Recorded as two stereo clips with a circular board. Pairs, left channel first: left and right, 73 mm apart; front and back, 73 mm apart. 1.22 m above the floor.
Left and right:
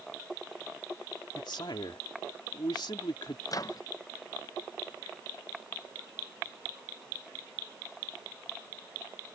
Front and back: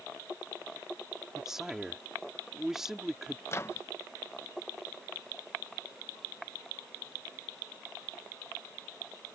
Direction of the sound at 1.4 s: 95° left.